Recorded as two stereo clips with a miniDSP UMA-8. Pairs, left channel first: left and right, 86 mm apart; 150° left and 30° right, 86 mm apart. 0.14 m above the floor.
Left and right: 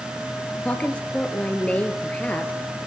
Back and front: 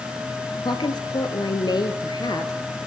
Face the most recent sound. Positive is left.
turn(degrees=165)